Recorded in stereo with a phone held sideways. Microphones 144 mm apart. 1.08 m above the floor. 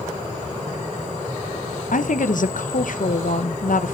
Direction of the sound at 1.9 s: 65° left (ahead or behind).